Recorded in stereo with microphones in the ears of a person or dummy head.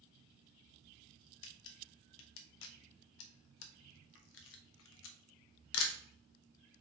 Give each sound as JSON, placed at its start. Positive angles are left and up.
{"t": 1.4, "sound": "a camera shutter", "side_deg": 70, "distance_m": 0.7}